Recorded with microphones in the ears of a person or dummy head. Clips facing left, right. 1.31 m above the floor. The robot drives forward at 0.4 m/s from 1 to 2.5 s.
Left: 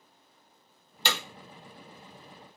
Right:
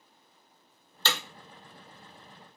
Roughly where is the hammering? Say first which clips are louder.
Left 1 dB; centre.